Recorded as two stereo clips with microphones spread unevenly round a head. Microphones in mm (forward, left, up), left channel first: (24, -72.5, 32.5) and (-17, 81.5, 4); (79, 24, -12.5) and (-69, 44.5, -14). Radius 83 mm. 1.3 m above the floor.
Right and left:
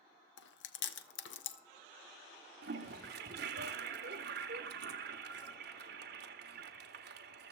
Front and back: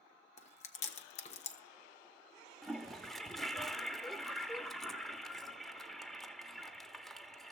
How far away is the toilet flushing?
About 1.4 m.